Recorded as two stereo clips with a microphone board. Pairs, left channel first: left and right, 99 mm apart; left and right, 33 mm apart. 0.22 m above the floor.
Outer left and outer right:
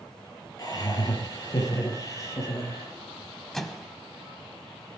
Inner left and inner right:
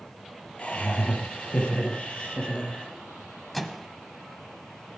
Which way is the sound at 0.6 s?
35° left (ahead or behind).